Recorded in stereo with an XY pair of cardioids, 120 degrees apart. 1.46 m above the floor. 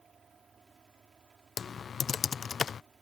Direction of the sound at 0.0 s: 35° right.